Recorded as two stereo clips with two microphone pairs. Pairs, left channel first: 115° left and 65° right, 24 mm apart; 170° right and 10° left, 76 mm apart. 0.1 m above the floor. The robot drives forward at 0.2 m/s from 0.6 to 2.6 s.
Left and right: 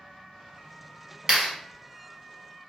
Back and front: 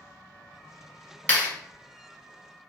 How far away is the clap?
About 1.6 m.